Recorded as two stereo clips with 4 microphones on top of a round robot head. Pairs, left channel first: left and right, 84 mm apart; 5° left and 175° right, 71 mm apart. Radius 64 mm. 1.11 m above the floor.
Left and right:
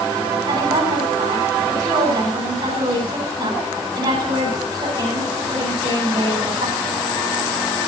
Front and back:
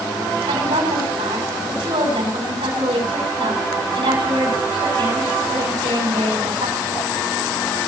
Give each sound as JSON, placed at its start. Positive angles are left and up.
{"t": 0.5, "sound": "a woman speaking", "azimuth_deg": -150, "distance_m": 8.5}